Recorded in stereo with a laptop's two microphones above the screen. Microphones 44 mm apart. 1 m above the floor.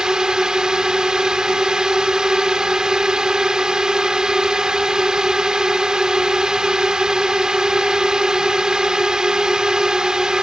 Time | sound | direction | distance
0.0 | a drone | 15° right (ahead or behind) | ?